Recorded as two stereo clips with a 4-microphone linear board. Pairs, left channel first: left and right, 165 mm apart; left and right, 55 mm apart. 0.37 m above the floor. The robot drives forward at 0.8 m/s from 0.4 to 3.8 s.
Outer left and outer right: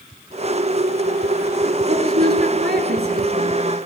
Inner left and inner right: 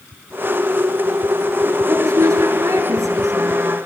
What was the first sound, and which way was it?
A woman speaking, 70° right (ahead or behind).